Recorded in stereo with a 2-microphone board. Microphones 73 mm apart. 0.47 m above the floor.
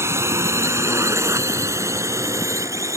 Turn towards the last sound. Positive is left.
turn(degrees=-40)  # may be behind; listen again after turning